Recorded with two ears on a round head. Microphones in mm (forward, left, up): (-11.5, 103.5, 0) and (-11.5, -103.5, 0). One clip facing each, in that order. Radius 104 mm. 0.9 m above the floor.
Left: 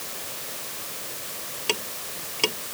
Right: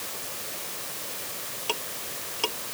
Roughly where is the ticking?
Left.